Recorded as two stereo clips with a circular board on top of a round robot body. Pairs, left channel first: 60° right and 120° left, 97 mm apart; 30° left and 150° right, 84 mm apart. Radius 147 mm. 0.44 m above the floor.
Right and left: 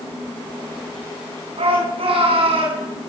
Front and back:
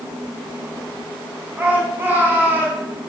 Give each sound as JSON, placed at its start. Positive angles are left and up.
{"t": 1.6, "sound": "a shout", "azimuth_deg": 140, "distance_m": 7.0}